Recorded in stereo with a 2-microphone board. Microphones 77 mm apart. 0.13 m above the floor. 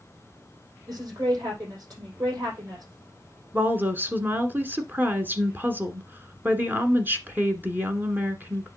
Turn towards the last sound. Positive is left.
turn(degrees=-25)  # may be behind; listen again after turning